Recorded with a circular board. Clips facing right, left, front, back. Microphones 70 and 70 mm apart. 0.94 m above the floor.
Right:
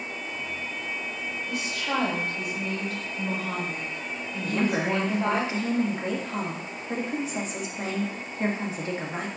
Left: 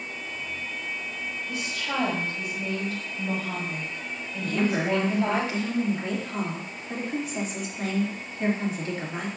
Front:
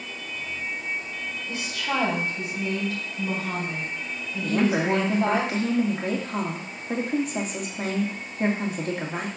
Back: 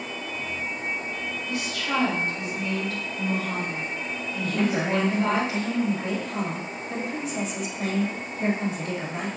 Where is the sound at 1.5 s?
60° right, 4 m.